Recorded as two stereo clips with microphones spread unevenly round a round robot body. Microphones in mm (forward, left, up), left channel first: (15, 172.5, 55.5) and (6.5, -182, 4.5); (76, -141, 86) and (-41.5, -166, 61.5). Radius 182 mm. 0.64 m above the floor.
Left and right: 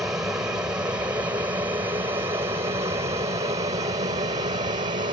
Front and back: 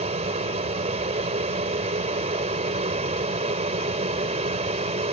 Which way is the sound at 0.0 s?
175° right.